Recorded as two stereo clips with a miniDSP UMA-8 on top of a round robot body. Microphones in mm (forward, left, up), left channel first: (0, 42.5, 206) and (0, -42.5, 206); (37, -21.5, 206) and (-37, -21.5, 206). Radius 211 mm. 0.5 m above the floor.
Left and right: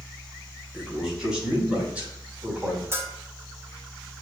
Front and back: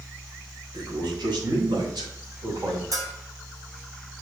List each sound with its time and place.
0.7 s a man speaking: 175° right, 4 m; by 2.8 s 160° right, 4 m
2.9 s a bell: 145° right, 3 m